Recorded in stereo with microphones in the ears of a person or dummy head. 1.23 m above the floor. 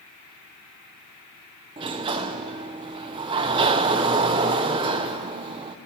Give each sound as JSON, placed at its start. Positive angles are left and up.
{"t": 1.8, "sound": "a sliding door", "side_deg": -25, "distance_m": 0.6}